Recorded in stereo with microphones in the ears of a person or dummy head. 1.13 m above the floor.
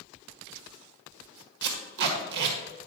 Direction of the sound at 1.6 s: 60° right (ahead or behind).